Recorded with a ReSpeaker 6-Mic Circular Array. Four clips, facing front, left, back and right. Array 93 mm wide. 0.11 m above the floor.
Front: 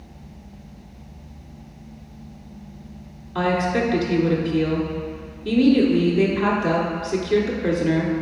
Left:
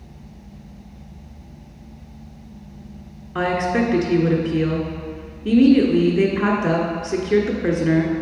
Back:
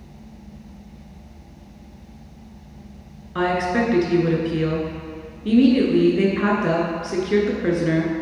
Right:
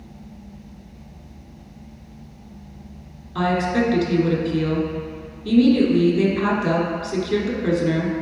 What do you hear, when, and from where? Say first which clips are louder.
3.4 s a woman speaking: even, even; 115° left, 1.2 m